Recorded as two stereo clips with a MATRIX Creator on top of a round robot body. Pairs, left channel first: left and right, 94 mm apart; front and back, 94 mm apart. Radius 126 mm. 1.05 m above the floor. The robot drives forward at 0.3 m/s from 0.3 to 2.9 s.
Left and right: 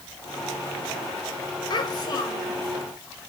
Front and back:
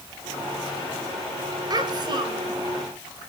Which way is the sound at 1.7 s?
135° left.